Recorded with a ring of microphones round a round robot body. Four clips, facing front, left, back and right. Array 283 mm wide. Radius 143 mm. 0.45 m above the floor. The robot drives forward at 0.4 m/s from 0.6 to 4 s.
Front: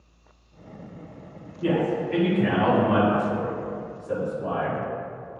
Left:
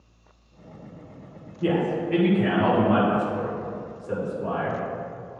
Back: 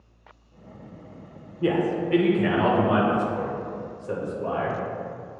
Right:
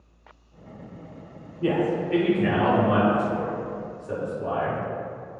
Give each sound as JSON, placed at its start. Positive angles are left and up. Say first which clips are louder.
{"t": 1.6, "sound": "a man speaking", "louder": "even, even", "azimuth_deg": 175, "distance_m": 1.7}